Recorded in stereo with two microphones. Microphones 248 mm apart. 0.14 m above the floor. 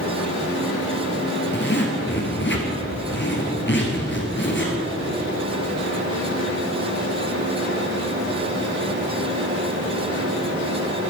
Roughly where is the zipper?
Left.